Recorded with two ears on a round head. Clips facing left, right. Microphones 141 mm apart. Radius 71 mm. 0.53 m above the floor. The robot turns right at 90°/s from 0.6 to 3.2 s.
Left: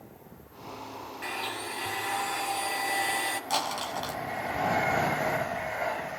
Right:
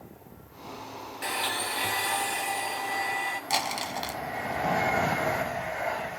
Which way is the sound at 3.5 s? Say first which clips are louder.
Right 1 dB; 10° right (ahead or behind).